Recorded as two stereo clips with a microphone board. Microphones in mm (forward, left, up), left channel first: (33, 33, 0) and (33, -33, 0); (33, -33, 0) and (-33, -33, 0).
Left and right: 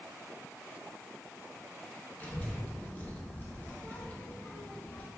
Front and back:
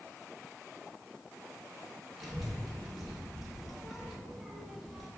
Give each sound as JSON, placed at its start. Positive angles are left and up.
{"t": 2.2, "sound": "a child speaking", "azimuth_deg": 95, "distance_m": 0.6}